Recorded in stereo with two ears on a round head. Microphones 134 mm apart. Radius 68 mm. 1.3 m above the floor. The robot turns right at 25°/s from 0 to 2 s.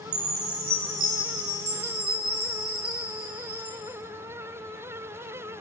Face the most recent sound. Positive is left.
turn(degrees=-35)